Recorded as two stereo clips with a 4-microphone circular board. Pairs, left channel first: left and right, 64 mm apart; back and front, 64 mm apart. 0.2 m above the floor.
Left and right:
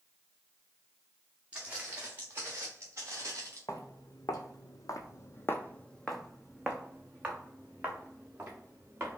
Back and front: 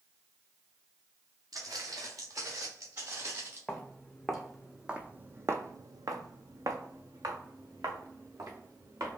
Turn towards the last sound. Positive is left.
turn(degrees=-35)